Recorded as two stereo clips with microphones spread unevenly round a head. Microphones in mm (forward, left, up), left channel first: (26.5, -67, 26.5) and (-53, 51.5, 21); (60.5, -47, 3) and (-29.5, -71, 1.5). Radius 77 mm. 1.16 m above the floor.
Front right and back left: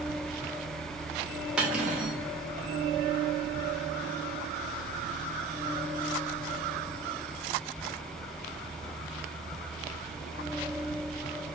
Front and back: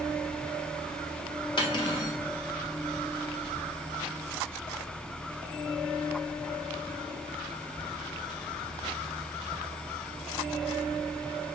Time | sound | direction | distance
1.6 | cutlery clinking | 40° left | 0.6 m